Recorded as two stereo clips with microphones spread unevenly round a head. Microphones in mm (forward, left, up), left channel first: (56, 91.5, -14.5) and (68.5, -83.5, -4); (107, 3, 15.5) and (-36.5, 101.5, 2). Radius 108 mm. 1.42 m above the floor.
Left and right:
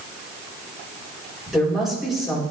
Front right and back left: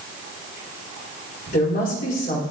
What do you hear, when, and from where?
1.5 s a woman speaking: 5° left, 4.5 m